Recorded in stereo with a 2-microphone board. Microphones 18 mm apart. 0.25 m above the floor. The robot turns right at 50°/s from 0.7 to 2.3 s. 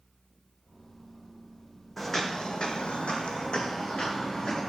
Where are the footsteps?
10° left (ahead or behind), 0.7 m; by 4.7 s 40° left (ahead or behind), 1.5 m.